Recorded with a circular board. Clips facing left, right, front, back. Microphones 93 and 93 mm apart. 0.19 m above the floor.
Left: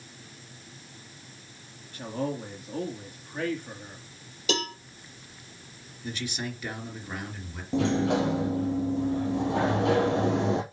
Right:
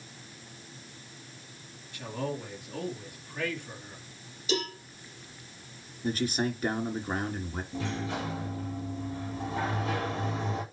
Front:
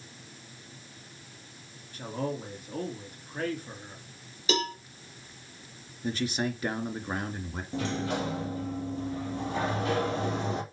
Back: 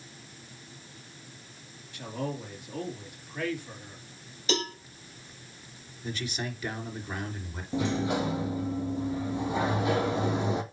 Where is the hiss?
I don't hear a hiss.